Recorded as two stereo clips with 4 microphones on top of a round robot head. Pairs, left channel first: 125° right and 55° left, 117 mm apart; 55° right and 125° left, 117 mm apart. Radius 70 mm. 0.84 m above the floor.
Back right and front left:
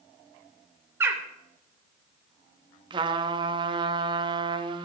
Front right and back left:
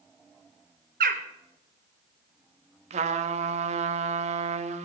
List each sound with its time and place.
1.0 s a bird: 130° left, 1.0 m
2.9 s a trumpet: 105° left, 0.8 m